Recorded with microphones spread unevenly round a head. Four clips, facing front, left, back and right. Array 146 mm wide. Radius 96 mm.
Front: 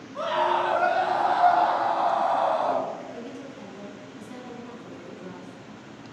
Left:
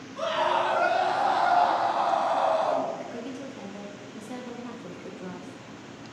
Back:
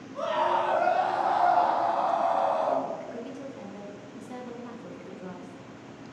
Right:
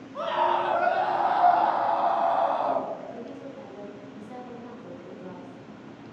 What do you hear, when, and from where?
0.1 s a scream: 30° right, 1.8 m
3.0 s a woman speaking: 110° left, 0.9 m